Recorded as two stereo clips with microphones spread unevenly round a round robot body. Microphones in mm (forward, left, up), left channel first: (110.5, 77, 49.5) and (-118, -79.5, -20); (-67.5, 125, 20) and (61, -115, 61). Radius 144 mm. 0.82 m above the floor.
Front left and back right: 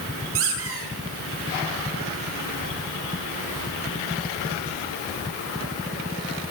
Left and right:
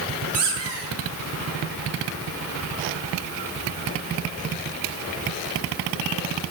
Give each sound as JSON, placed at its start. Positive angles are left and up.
{"t": 0.3, "sound": "a squeak", "azimuth_deg": -100, "distance_m": 8.5}